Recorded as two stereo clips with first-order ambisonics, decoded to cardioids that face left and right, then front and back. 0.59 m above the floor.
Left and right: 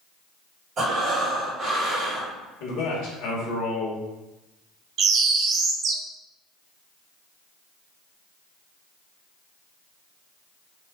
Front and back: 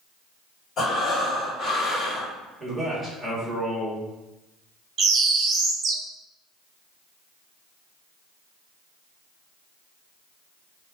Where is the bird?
130° right, 0.6 m.